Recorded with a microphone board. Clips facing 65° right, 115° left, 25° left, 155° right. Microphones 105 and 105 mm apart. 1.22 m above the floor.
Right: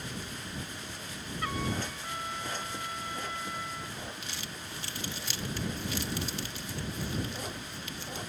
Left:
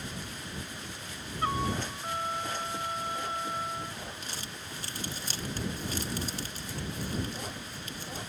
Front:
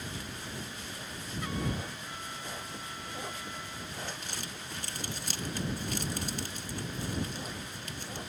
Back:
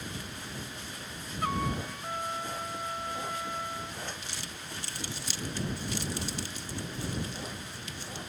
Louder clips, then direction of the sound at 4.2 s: Even, front 1 dB; 65° left.